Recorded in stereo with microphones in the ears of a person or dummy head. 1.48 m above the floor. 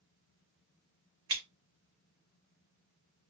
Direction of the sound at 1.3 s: 25° right (ahead or behind).